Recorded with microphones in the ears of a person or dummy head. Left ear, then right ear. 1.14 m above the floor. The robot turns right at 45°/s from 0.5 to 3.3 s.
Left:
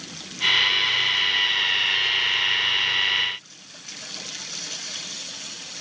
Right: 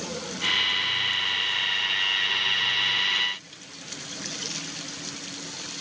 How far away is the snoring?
I don't hear snoring.